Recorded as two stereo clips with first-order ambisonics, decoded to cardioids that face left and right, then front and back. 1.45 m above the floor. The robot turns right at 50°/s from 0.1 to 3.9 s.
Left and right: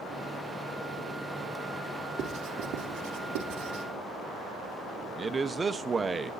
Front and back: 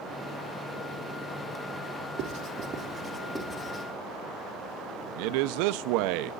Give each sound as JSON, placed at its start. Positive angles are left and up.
{"t": 2.2, "sound": "writing", "azimuth_deg": -135, "distance_m": 2.5}
{"t": 5.2, "sound": "a man speaking", "azimuth_deg": -165, "distance_m": 0.8}